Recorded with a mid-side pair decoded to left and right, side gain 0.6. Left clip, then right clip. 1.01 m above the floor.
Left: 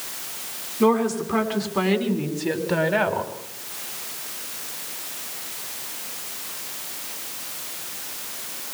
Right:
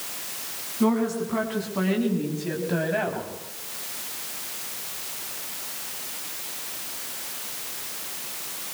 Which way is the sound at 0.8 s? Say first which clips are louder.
Left 5 dB; 25° left.